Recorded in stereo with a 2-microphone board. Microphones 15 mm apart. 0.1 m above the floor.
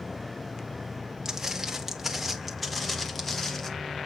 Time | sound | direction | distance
1.2 | footsteps | 25° right (ahead or behind) | 1.8 m